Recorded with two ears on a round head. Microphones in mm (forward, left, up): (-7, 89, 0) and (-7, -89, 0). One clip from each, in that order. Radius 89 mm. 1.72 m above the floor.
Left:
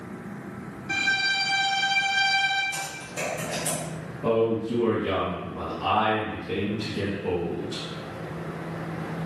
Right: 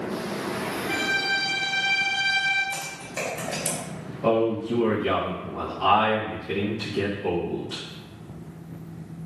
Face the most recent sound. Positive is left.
turn(degrees=-30)  # may be behind; listen again after turning